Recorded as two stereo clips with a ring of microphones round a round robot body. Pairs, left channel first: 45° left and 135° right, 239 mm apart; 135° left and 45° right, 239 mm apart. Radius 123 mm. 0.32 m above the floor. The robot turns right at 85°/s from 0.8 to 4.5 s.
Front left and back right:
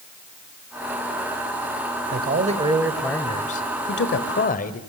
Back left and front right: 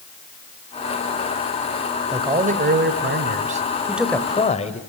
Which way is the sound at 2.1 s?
120° right.